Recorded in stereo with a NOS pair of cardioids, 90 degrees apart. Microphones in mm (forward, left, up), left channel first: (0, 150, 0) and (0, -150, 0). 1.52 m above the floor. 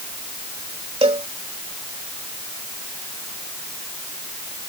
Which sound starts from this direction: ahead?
A cowbell, at 1.0 s.